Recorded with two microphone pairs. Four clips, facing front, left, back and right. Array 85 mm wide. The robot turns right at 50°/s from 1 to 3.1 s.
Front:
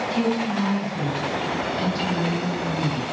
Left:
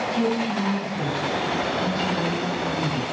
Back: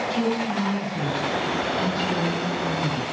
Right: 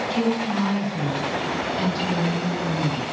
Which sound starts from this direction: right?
A woman speaking, at 0.1 s.